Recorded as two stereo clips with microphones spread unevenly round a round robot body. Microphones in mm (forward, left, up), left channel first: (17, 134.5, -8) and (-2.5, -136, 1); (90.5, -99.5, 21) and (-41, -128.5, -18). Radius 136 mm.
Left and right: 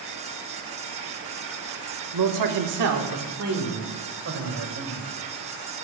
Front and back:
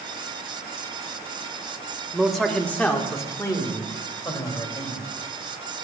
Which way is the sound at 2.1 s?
85° right.